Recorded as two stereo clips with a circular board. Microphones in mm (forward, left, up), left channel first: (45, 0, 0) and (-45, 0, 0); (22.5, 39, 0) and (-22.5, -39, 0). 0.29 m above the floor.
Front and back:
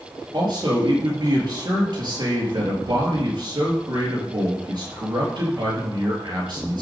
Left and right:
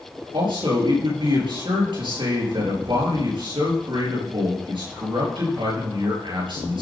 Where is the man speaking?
140° right, 6 m.